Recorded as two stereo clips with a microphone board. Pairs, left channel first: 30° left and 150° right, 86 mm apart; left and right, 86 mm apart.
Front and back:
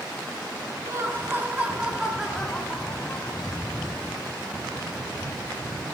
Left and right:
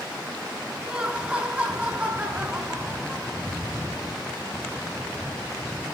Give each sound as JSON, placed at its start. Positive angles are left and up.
{"t": 0.8, "sound": "laughter", "azimuth_deg": -160, "distance_m": 1.5}